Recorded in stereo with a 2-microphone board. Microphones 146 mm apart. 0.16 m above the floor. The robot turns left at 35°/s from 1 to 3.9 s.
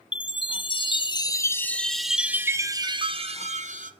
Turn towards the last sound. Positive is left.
turn(degrees=-65)